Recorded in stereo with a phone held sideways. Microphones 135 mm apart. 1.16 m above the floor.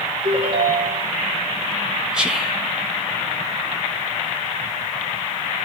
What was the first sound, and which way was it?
A ringtone, 60° right (ahead or behind).